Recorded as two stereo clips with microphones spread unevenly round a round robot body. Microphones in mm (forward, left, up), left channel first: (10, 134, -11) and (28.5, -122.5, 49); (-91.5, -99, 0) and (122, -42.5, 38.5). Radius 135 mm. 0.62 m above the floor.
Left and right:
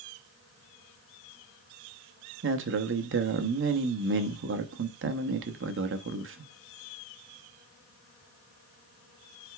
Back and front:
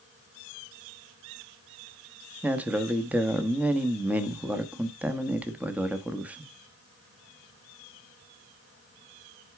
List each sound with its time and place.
2.4 s a man speaking: 80° right, 1.0 m